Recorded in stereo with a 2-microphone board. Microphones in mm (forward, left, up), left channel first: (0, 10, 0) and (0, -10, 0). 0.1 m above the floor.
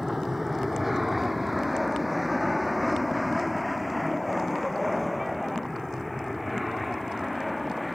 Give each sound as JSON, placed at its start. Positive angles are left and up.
{"t": 0.0, "sound": "an aircraft", "side_deg": -15}